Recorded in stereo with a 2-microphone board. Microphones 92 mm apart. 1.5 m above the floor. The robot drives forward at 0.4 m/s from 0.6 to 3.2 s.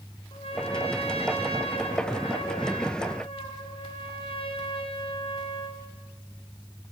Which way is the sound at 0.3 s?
80° left.